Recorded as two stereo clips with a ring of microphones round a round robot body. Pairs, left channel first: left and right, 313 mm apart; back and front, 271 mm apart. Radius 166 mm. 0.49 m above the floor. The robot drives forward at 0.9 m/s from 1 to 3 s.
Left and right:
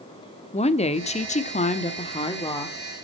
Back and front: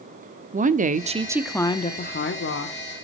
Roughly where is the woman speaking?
Ahead left.